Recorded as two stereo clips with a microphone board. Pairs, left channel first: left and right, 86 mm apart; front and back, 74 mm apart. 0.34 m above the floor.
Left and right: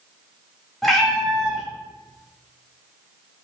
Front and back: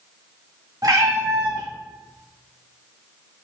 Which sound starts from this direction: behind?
A cat meowing, at 0.8 s.